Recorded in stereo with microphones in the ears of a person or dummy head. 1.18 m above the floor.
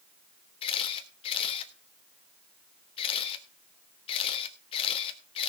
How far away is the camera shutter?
About 1.3 m.